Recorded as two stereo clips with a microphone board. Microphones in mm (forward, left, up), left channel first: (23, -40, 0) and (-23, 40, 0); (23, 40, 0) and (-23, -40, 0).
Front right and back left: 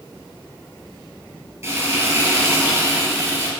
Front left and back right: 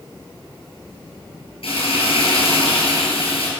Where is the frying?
55° left, 4 m.